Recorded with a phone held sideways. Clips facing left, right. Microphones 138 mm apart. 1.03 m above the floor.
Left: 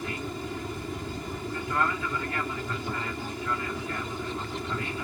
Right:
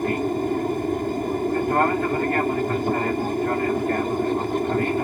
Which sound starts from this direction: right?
An aircraft, at 0.0 s.